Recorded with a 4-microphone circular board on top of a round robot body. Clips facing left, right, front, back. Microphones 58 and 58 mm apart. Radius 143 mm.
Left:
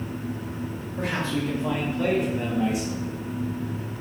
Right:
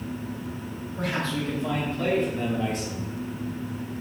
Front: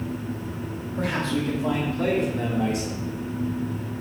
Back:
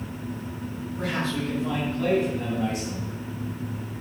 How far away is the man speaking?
About 3.5 m.